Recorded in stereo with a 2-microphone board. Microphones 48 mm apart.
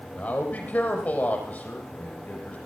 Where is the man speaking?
35° left (ahead or behind), 5 m.